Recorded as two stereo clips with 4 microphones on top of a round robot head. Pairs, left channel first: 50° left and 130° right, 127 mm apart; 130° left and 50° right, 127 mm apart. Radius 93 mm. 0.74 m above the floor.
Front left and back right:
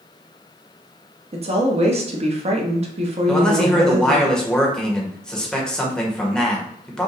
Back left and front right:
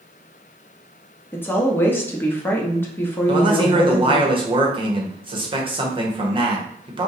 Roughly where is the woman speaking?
Behind.